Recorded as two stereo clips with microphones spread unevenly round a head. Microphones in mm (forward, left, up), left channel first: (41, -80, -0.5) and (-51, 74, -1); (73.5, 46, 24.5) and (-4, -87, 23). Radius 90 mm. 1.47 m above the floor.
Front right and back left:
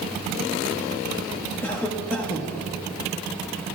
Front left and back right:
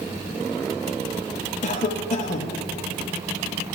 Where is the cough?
20° left, 0.7 m.